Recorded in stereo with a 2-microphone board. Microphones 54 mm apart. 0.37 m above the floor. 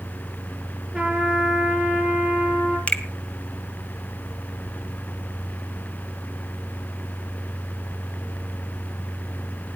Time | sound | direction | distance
0.9 | a trumpet | centre (ahead or behind) | 9 m
2.9 | a finger snap | 25° left (ahead or behind) | 1.7 m